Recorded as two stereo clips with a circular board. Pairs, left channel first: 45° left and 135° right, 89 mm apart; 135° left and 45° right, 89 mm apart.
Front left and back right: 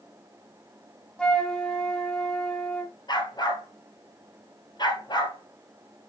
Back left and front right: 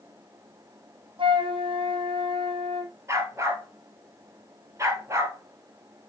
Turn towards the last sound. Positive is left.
turn(degrees=10)